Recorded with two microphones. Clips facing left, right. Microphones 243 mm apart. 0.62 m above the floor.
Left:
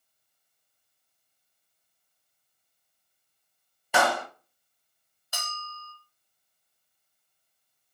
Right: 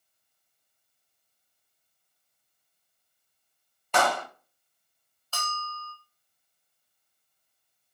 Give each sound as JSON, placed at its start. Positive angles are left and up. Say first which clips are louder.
{"t": 3.9, "sound": "a clap", "louder": "left 1 dB", "side_deg": 10, "distance_m": 0.6}
{"t": 5.3, "sound": "a bell", "louder": "right 4 dB", "side_deg": 15, "distance_m": 0.7}